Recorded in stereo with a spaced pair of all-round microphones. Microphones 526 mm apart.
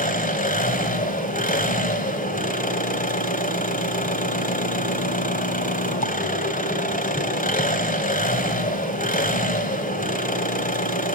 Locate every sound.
0.0 s an engine running: 15° left (ahead or behind), 2.5 m